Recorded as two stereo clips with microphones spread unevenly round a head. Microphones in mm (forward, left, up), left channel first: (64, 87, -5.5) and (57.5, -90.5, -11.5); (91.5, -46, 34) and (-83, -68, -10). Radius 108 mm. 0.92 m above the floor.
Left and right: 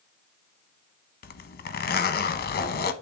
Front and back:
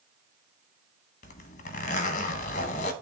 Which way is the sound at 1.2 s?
65° left.